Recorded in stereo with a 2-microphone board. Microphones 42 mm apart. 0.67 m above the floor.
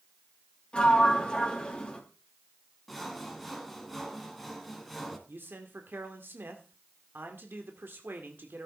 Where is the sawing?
Centre (ahead or behind), 2 m.